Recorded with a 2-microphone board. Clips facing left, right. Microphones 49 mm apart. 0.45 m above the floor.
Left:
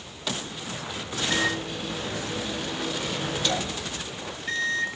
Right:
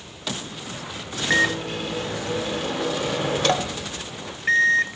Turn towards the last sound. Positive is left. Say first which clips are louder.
# right 7 dB
turn(degrees=-55)  # may be behind; listen again after turning